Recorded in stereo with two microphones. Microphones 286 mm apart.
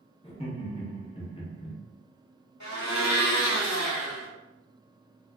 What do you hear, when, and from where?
0.2 s laughter: 20° left (ahead or behind), 0.8 m
2.6 s a blender: 65° left (ahead or behind), 1.1 m